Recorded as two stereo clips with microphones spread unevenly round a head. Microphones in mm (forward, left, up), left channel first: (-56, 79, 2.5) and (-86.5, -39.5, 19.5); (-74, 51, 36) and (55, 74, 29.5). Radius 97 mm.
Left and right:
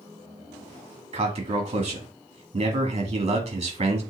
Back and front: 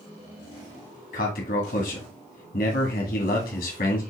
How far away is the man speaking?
About 1.9 m.